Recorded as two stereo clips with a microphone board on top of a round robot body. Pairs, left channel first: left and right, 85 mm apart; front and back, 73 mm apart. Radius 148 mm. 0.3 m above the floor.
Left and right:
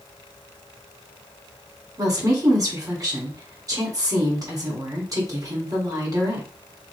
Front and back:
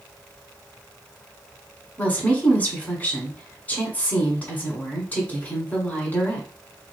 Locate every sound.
2.0 s a woman speaking: 65° right, 2 m